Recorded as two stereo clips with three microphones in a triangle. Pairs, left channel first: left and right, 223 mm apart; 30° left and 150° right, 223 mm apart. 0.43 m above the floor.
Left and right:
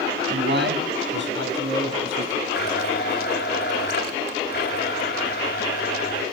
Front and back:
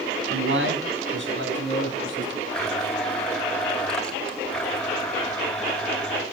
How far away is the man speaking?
About 3.5 m.